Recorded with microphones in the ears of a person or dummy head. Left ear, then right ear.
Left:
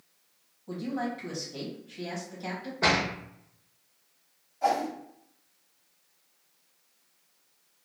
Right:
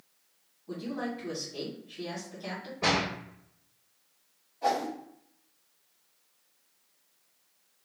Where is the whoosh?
50° left (ahead or behind), 1.6 m.